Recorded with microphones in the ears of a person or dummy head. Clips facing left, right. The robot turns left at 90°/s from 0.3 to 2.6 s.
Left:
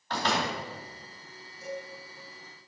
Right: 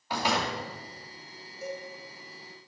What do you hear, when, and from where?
0.1 s a door slam: 10° right (ahead or behind), 2 m; by 0.6 s 10° left (ahead or behind), 2 m
1.6 s a cowbell: 65° right (ahead or behind), 2 m; by 1.9 s 45° right (ahead or behind), 2 m